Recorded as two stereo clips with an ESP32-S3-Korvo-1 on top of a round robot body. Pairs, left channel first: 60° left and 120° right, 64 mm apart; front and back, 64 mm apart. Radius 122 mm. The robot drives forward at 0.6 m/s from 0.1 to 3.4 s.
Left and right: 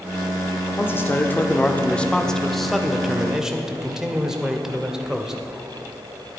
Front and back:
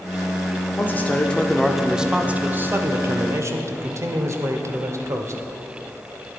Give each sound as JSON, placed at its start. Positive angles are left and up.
{"t": 0.8, "sound": "a man speaking", "azimuth_deg": 35, "distance_m": 1.1}